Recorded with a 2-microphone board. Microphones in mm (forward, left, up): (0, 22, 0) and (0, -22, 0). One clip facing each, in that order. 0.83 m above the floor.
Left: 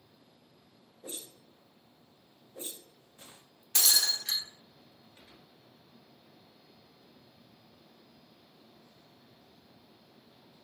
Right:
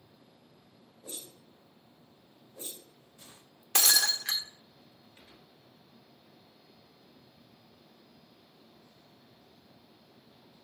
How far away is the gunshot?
About 1.7 m.